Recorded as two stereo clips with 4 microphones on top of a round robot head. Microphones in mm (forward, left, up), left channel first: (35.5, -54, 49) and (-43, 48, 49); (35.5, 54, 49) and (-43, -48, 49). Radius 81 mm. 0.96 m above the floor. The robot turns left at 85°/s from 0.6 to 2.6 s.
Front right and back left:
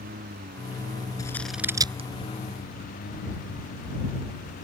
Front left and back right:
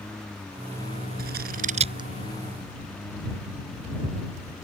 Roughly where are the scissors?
Behind right.